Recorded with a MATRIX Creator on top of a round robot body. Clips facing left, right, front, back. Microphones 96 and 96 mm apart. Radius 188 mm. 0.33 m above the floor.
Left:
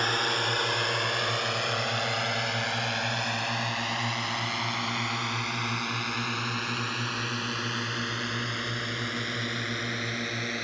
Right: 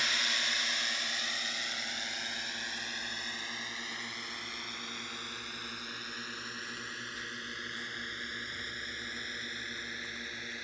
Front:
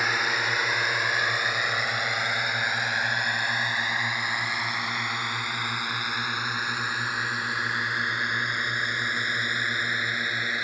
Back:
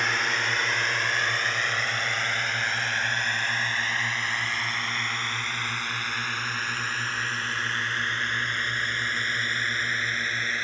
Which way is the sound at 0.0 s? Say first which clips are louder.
Left 9 dB, front 1 dB; 85° left.